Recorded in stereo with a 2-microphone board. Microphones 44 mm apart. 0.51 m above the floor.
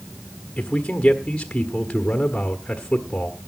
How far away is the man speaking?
About 1.3 m.